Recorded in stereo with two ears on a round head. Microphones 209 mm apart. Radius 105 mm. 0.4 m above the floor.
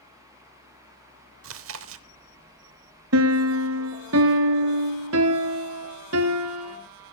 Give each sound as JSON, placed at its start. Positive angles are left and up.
{"t": 1.4, "sound": "chewing", "side_deg": -65, "distance_m": 0.8}
{"t": 3.1, "sound": "a piano", "side_deg": -75, "distance_m": 1.3}